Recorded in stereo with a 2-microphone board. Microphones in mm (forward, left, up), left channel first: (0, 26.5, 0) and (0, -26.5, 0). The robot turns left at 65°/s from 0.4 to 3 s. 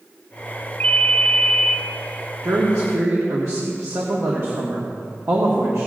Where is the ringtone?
50° left, 0.7 m; by 1.8 s 15° right, 0.7 m.